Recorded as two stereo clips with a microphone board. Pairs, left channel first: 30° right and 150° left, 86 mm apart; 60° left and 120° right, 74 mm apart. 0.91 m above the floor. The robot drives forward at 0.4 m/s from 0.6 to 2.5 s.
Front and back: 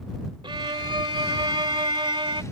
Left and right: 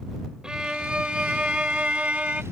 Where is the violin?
160° left; by 2.4 s 165° left.